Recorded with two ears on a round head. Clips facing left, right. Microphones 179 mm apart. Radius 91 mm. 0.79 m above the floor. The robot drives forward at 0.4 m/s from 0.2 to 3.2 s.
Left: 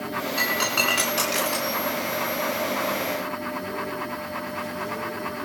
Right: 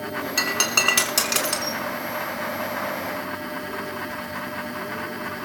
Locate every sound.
0.4 s breaking glass: 65° right (ahead or behind), 4.5 m; by 1.8 s 60° right (ahead or behind), 4.5 m